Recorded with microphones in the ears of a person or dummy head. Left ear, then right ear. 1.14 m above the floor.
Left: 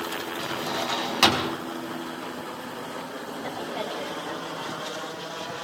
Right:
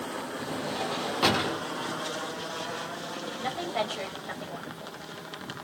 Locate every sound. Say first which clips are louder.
0.4 s a drawer: left 3 dB; 75° left (ahead or behind), 5 m
3.4 s a woman speaking: right 2 dB; 35° right (ahead or behind), 4.5 m